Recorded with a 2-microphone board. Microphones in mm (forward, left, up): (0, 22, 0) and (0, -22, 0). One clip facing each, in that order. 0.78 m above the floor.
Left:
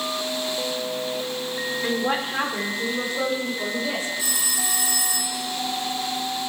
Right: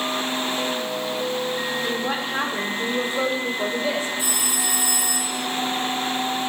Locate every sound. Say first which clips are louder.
1.8 s a woman speaking: left 1 dB; 15° left (ahead or behind), 1.8 m; by 4.1 s 40° right (ahead or behind), 2.5 m
4.2 s a phone ringing: right 2 dB; 25° right (ahead or behind), 5 m